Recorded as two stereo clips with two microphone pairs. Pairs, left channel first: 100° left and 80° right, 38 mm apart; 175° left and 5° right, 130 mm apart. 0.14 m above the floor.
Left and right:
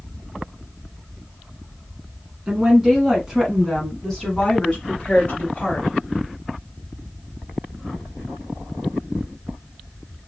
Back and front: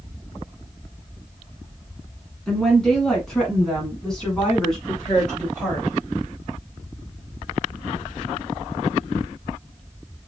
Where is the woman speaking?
105° right, 1.8 m; by 5.9 s 90° left, 2 m.